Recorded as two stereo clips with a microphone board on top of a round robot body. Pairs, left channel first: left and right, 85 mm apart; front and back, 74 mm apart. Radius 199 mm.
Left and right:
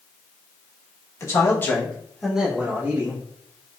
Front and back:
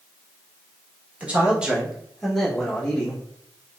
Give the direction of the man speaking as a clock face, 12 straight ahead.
8 o'clock.